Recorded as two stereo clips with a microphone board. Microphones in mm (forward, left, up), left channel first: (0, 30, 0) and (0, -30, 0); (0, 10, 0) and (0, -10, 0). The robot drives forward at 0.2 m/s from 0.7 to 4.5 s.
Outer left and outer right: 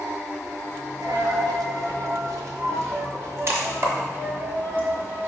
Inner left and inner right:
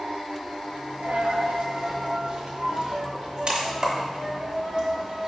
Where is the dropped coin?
85° right, 0.6 m; by 5.3 s 40° right (ahead or behind), 0.9 m.